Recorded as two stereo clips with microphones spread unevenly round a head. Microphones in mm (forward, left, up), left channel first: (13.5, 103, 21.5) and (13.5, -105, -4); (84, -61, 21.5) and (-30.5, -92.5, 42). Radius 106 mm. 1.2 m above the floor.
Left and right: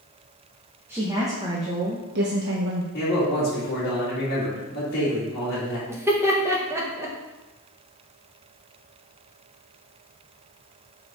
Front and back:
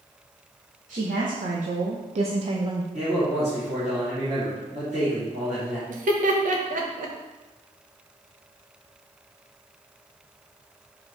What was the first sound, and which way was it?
A woman speaking, 170° right.